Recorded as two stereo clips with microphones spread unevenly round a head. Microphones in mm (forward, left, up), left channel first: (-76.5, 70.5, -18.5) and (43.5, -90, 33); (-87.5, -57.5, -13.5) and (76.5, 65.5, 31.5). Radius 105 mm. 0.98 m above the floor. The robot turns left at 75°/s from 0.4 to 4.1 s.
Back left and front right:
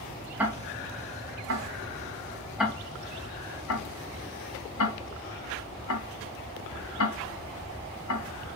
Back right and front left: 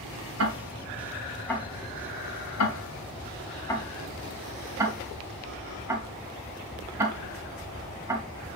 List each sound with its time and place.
0.4 s ticking: 30° left, 3 m; by 8.2 s 110° left, 3 m